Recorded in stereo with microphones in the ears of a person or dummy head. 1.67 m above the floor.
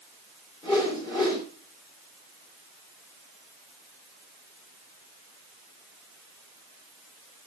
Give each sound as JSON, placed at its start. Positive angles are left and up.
{"t": 0.6, "sound": "a whoosh", "side_deg": 25, "distance_m": 5.5}